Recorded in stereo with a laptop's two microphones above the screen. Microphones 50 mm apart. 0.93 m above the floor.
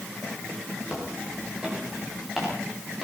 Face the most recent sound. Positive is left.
turn(degrees=-5)  # may be behind; listen again after turning